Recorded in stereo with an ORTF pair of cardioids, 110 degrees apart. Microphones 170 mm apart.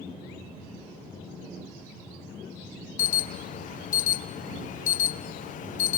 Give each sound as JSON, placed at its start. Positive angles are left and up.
{"t": 3.0, "sound": "an alarm", "azimuth_deg": 55, "distance_m": 0.6}